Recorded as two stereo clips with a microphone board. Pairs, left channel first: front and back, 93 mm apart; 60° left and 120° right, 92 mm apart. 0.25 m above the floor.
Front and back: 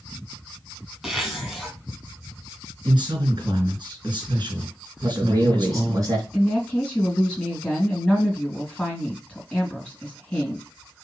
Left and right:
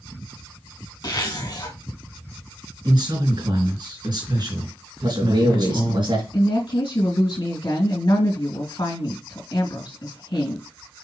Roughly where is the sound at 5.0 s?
Behind right.